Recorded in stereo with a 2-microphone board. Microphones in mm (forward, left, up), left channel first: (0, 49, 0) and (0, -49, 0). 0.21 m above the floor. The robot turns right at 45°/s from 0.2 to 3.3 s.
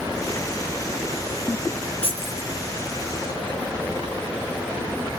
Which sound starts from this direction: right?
Keys jangling, at 2.0 s.